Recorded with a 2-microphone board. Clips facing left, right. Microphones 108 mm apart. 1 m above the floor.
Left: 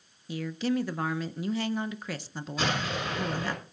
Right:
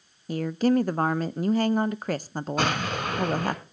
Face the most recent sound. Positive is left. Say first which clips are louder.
# right 3 dB
turn(degrees=-60)  # may be behind; listen again after turning